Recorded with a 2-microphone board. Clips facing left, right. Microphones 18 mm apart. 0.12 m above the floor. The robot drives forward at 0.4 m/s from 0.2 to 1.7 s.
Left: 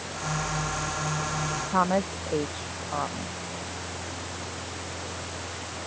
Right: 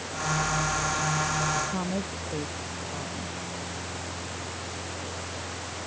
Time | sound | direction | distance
1.7 | a woman speaking | 65° left (ahead or behind) | ?